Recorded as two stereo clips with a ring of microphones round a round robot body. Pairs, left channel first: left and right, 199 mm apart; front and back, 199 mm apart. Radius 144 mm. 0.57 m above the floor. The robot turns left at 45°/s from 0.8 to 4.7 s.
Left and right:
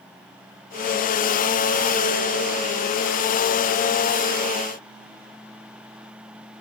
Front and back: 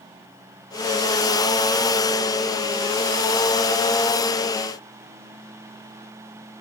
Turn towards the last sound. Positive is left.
No sound to turn to.